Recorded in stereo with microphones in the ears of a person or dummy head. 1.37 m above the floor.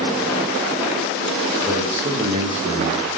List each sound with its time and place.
1.6 s a man speaking: 10° right (ahead or behind), 2.0 m; by 3.1 s 75° right (ahead or behind), 1.2 m